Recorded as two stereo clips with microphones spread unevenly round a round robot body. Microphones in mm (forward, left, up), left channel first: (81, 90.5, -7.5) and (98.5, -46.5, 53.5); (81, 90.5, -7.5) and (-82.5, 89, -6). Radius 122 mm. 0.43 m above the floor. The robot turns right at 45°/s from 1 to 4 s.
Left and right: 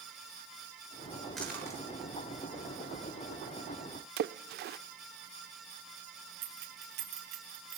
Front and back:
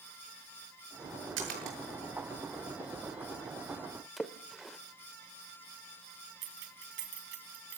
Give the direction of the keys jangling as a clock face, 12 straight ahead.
4 o'clock.